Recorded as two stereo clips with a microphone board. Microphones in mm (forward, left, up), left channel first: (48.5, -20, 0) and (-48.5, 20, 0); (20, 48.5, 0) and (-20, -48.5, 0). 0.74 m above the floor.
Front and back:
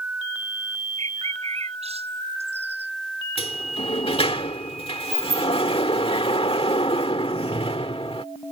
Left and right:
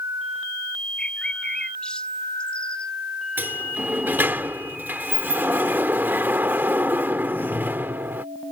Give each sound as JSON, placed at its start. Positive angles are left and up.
{"t": 1.0, "sound": "a bird", "azimuth_deg": 150}
{"t": 3.4, "sound": "a sliding door", "azimuth_deg": -40}